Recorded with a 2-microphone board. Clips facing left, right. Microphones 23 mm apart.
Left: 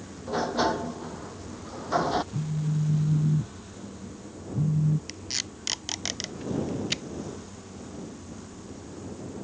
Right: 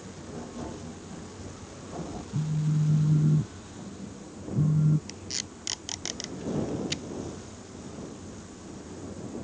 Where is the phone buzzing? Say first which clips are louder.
Right 1 dB; 40° right (ahead or behind).